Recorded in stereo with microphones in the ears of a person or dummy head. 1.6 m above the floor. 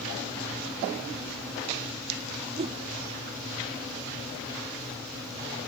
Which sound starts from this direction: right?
A whoosh, at 2.6 s.